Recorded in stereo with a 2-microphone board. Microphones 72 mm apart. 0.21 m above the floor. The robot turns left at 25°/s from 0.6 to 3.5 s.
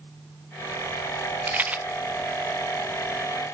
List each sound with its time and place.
1.5 s a rattle: 25° right (ahead or behind), 0.6 m; by 1.8 s 15° right (ahead or behind), 0.6 m